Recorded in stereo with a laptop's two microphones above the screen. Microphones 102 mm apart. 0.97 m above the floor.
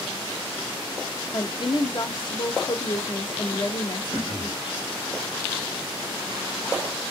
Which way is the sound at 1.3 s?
50° left (ahead or behind).